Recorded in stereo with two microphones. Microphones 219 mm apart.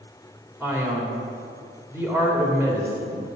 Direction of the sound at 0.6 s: 10° right (ahead or behind).